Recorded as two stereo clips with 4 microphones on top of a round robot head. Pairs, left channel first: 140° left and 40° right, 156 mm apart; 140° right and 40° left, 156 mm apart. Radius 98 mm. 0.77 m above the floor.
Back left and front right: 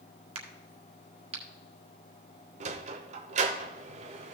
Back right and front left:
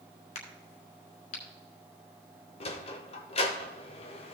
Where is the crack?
90° right, 1.7 m.